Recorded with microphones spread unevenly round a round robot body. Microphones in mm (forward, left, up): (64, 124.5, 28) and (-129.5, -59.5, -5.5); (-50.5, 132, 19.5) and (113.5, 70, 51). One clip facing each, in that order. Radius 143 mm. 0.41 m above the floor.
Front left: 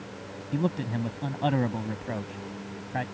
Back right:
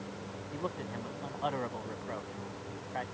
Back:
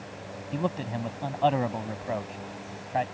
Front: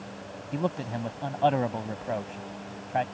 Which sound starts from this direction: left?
A man speaking, at 0.5 s.